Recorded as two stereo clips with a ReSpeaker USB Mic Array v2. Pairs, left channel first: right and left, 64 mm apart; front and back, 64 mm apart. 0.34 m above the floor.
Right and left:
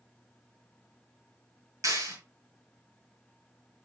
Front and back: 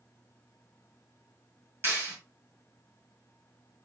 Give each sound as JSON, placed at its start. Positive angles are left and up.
{"t": 1.8, "sound": "a clap", "azimuth_deg": 125, "distance_m": 5.0}